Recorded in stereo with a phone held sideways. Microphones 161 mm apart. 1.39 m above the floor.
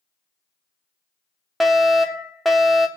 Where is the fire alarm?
Centre (ahead or behind), 1.0 m.